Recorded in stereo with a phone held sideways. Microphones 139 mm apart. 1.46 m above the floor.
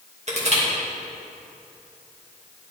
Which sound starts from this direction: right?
Crushing, at 0.3 s.